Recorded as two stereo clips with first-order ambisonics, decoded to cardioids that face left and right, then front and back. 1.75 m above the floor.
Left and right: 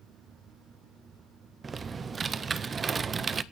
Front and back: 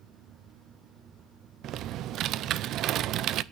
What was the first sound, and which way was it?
Typing on a keyboard, 155° right.